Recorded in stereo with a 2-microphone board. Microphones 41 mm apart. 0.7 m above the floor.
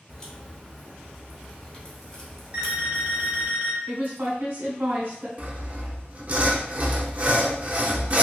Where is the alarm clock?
35° right (ahead or behind), 1.3 m.